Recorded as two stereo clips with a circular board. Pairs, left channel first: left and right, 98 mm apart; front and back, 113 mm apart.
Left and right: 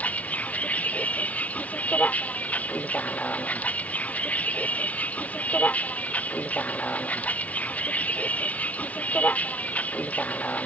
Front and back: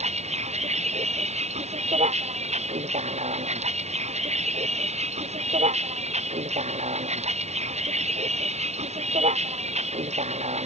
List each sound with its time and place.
0.0 s a vehicle: 165° left